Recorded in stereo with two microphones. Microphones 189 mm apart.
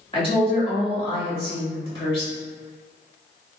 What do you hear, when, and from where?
0.1 s a woman speaking: 30° left (ahead or behind), 1.6 m